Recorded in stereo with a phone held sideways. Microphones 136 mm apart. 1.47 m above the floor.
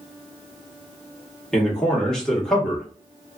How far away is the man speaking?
About 1.4 m.